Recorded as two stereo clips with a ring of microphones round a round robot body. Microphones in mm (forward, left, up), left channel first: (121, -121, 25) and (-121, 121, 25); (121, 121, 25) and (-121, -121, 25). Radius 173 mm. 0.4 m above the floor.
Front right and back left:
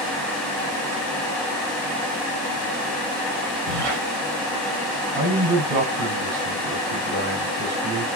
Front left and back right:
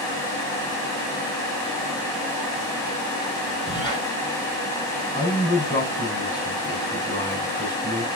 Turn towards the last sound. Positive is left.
turn(degrees=125)